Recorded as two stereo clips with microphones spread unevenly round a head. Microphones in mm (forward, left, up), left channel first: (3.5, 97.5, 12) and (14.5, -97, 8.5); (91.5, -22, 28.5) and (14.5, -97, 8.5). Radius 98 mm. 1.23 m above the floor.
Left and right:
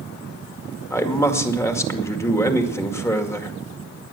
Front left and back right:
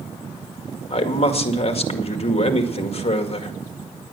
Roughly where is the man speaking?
Ahead.